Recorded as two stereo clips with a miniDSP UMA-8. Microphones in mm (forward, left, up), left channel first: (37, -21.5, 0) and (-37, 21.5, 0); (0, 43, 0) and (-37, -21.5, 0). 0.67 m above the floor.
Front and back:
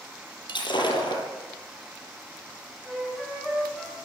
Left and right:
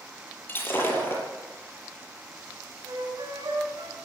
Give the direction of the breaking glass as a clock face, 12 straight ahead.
12 o'clock.